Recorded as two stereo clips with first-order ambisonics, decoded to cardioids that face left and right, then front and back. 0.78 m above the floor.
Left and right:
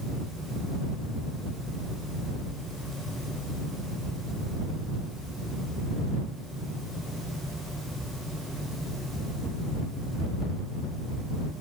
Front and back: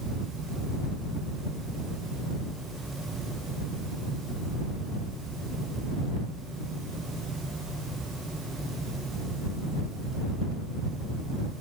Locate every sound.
Only background noise.